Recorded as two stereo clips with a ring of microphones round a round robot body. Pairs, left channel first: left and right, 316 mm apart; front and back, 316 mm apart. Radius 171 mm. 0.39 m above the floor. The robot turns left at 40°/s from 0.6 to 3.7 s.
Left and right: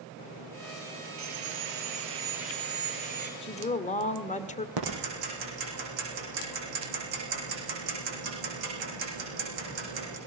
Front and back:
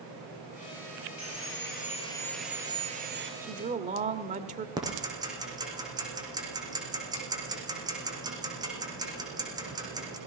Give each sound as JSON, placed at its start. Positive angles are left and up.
{"t": 1.2, "sound": "sawing", "azimuth_deg": -40, "distance_m": 6.0}
{"t": 3.4, "sound": "a woman speaking", "azimuth_deg": 145, "distance_m": 1.2}
{"t": 4.8, "sound": "ticking", "azimuth_deg": -100, "distance_m": 9.0}